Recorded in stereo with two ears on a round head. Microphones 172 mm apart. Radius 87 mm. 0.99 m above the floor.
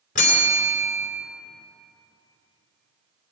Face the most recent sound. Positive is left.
turn(degrees=40)  # may be behind; listen again after turning